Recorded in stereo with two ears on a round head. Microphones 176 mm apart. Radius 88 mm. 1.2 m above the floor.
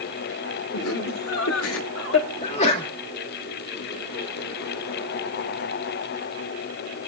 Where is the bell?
No bell in this recording.